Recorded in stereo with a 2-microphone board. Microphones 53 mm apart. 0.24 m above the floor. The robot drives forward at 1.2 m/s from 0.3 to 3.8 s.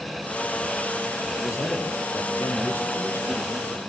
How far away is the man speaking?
About 7 m.